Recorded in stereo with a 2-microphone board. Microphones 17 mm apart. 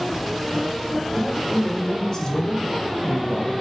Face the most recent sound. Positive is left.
turn(degrees=45)  # may be behind; listen again after turning